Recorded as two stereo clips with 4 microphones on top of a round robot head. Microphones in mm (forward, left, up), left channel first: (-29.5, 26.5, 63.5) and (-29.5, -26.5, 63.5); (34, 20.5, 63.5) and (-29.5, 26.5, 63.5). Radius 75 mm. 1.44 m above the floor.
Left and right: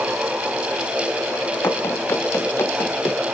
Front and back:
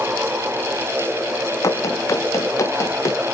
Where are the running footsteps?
40° left; by 3.2 s 35° left.